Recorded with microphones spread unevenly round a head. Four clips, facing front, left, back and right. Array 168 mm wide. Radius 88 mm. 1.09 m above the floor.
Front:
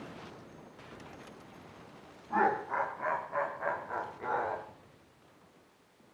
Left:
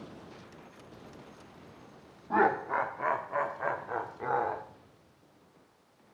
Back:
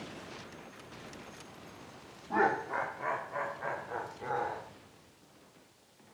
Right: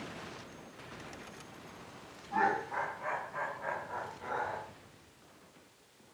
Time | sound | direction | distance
2.3 | laughter | 110° left | 3 m